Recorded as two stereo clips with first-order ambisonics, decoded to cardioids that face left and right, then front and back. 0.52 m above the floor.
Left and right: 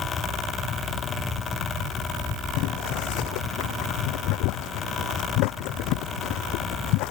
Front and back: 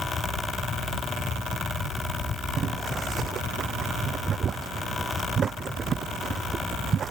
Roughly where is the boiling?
Behind left.